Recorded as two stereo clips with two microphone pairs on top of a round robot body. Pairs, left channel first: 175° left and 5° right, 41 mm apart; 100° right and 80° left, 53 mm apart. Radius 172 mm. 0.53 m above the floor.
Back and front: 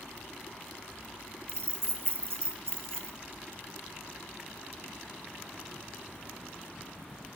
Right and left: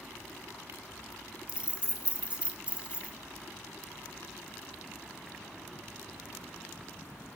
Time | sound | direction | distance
1.5 | keys jangling | 15° left | 0.8 m